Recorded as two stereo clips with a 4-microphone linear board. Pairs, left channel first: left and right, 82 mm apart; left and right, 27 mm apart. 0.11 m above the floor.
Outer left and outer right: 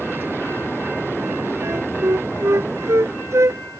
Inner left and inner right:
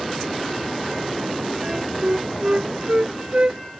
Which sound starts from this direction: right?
A flute, at 1.6 s.